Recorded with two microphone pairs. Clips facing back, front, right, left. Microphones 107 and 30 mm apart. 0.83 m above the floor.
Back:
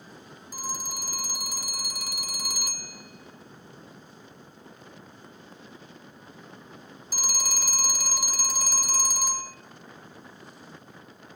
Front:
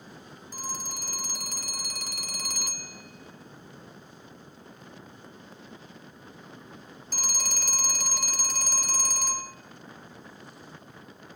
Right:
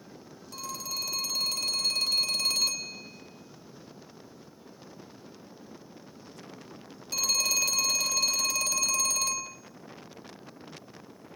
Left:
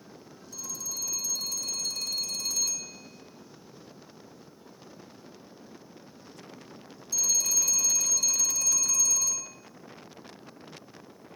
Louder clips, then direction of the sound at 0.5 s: Back 2 dB, right 3 dB; 100° right.